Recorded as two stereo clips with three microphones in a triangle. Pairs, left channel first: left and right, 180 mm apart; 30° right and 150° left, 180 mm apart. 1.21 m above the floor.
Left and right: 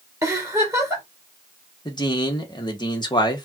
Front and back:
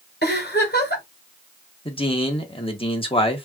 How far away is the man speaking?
About 1.4 m.